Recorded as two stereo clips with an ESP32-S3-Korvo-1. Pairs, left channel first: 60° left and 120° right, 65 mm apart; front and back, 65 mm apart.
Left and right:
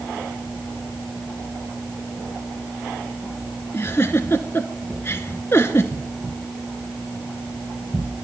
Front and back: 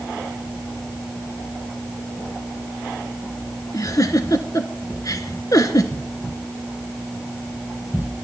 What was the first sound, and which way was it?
A giggle, 15° left.